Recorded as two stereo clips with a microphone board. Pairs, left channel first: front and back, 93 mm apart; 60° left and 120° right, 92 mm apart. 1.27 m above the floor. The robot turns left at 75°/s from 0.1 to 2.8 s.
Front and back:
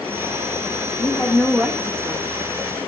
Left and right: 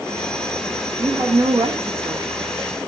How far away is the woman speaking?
About 1.8 m.